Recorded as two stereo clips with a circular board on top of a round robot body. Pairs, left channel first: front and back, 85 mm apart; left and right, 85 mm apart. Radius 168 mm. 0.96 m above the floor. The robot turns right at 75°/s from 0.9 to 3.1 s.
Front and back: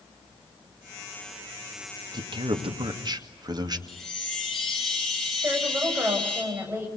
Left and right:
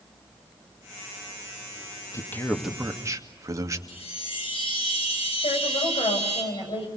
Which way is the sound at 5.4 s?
110° left.